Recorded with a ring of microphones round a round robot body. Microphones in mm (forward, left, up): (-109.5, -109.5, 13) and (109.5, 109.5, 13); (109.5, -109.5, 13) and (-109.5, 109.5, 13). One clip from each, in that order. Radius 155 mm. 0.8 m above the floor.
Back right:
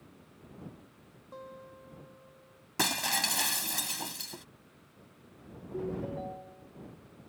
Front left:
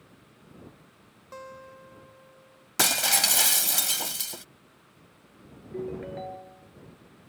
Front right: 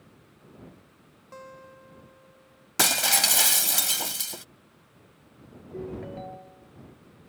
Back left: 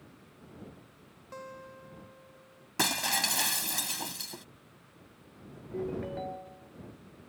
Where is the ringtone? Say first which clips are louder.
Front left 2 dB, back left 1 dB; 55° left.